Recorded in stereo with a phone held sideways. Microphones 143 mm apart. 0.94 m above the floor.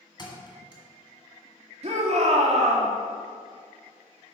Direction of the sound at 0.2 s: 30° left (ahead or behind).